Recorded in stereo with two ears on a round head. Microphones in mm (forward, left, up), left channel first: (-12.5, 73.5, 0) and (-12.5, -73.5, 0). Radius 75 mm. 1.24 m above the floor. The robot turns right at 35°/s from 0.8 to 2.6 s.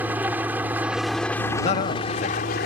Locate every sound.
0.0 s an engine running: 10° right; by 2.7 s 55° left
1.6 s a man speaking: 35° left (ahead or behind); by 2.7 s 60° left (ahead or behind)